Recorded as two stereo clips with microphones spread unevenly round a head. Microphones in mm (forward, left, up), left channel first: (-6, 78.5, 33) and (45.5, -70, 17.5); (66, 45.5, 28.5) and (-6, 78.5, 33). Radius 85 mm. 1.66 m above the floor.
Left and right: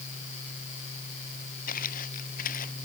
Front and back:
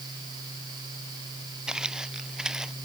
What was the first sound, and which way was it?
Footsteps, 75° left.